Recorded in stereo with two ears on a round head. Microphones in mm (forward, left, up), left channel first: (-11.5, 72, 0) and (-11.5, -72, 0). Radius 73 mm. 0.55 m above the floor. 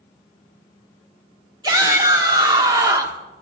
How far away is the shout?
About 1.8 m.